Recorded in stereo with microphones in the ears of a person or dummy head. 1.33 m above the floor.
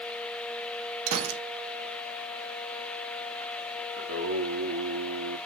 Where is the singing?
75° right (ahead or behind), 1.9 m.